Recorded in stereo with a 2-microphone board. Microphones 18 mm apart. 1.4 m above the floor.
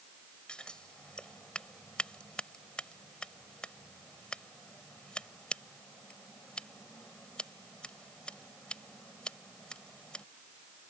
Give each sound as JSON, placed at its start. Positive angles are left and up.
{"t": 0.5, "sound": "scissors", "side_deg": 80}